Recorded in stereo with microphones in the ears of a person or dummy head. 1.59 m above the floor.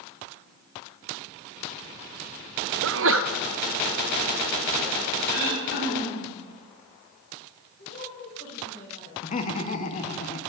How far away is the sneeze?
About 0.5 m.